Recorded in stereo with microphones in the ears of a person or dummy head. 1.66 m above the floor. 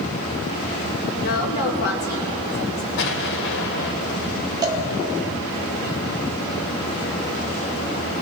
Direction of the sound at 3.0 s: 60° left (ahead or behind).